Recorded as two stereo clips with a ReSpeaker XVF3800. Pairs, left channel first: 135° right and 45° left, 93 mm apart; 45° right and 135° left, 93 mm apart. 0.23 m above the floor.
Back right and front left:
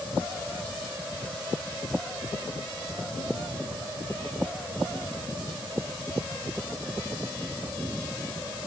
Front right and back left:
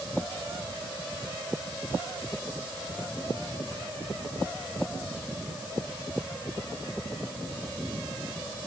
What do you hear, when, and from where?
Only background noise.